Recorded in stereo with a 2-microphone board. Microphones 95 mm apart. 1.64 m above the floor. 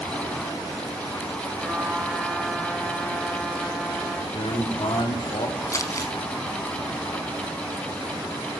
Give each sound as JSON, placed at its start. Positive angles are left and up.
{"t": 1.6, "sound": "a trumpet", "side_deg": 0, "distance_m": 7.0}
{"t": 4.3, "sound": "a man speaking", "side_deg": 80, "distance_m": 4.5}
{"t": 5.7, "sound": "crumpling", "side_deg": 35, "distance_m": 4.0}